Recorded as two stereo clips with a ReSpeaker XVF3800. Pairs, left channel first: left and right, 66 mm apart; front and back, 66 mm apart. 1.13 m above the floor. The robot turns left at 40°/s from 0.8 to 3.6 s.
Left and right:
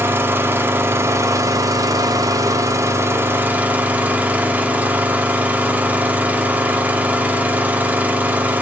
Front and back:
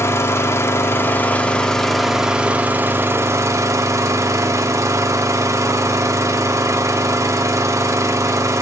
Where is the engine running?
40° right, 1.0 m; by 8.6 s 155° right, 1.0 m.